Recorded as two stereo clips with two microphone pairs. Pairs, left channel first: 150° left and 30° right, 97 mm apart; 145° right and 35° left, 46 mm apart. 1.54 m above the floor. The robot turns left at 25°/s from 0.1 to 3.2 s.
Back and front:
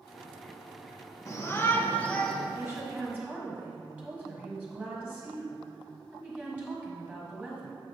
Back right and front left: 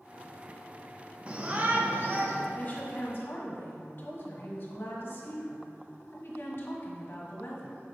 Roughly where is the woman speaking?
Right.